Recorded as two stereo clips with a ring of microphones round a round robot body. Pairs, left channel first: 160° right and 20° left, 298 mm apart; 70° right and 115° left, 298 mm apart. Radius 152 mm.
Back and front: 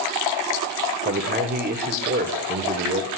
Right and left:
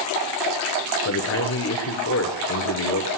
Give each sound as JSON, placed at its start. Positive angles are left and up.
{"t": 1.1, "sound": "a man speaking", "azimuth_deg": -30, "distance_m": 1.2}